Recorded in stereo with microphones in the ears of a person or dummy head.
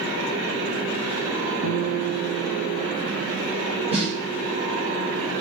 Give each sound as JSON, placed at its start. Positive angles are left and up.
{"t": 1.6, "sound": "a guitar", "side_deg": -70, "distance_m": 1.6}
{"t": 3.9, "sound": "a snare drum", "side_deg": -30, "distance_m": 4.0}